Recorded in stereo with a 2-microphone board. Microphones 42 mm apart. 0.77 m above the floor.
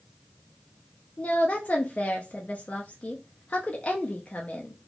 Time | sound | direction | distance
1.2 | a woman speaking | 30° left (ahead or behind) | 0.5 m